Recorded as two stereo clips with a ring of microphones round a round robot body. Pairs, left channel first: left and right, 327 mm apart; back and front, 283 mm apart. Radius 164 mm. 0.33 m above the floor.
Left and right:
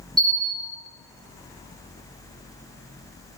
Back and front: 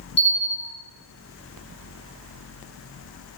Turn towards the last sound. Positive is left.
turn(degrees=-165)